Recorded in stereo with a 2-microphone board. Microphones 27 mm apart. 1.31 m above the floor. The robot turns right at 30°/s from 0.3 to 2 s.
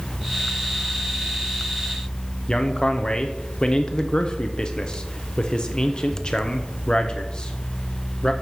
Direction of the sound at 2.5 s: 35° left (ahead or behind).